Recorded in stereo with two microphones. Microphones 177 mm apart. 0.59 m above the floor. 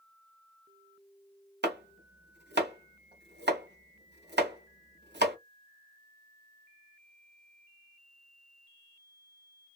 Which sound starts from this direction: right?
Chopping, at 1.6 s.